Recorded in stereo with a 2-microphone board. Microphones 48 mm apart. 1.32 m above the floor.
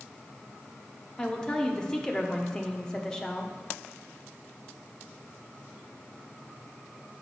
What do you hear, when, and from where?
1.2 s a woman speaking: 10° left (ahead or behind), 0.9 m